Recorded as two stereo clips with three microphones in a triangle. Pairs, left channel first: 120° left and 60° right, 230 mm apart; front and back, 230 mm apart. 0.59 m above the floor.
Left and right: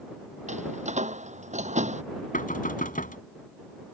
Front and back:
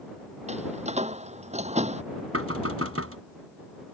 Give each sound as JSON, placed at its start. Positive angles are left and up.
{"t": 0.5, "sound": "a door slam", "azimuth_deg": -120}
{"t": 2.3, "sound": "knocking", "azimuth_deg": 175}